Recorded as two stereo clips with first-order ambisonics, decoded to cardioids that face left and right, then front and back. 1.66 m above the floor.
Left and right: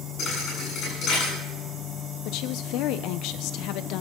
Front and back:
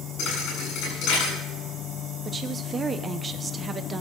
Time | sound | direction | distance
0.2 | a thud | 40° left | 8.5 m
2.2 | a woman speaking | 110° left | 0.8 m